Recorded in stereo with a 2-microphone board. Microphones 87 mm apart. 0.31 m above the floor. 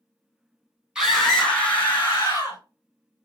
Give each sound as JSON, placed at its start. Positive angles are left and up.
{"t": 0.9, "sound": "a scream", "side_deg": -5, "distance_m": 2.0}